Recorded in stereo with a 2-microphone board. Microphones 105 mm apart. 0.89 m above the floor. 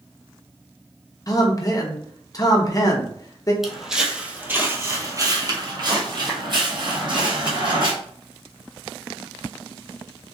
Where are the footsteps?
Centre (ahead or behind), 1.1 m; by 7.9 s 50° right (ahead or behind), 2.0 m.